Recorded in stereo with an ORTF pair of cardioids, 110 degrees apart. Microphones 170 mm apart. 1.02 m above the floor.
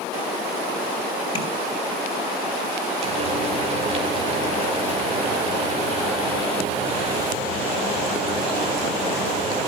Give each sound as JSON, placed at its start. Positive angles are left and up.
{"t": 1.4, "sound": "tapping", "azimuth_deg": 25, "distance_m": 4.5}
{"t": 3.0, "sound": "frying", "azimuth_deg": -40, "distance_m": 5.0}